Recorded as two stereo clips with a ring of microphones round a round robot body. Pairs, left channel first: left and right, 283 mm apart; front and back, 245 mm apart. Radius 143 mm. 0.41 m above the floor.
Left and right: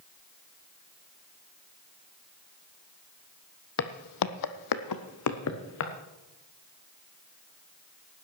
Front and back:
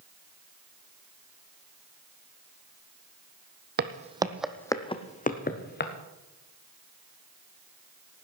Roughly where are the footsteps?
Behind left.